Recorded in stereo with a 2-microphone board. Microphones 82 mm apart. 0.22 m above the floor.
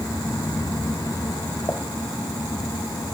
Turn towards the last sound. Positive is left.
turn(degrees=30)  # may be behind; listen again after turning